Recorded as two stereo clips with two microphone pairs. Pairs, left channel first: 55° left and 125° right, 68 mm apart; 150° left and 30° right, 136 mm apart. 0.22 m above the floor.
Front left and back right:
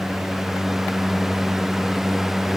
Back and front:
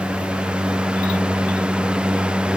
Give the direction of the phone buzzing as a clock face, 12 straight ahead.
No phone buzzing in this recording.